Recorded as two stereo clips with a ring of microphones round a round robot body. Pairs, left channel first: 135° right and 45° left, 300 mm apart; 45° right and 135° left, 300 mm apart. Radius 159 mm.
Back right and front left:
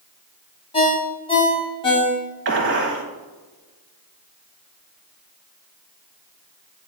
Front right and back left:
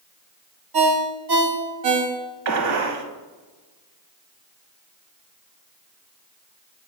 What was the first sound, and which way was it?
A ringtone, 150° left.